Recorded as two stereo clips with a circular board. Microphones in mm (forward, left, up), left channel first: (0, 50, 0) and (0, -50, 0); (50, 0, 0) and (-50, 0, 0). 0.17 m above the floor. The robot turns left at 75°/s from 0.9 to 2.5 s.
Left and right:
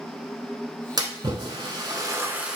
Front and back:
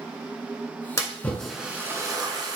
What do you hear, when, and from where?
1.0 s a splash: 50° right, 0.6 m; by 2.6 s 165° right, 0.6 m